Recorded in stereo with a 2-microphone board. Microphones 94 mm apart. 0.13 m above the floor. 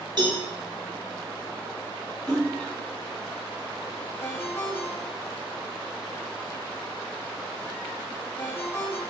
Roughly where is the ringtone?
Left.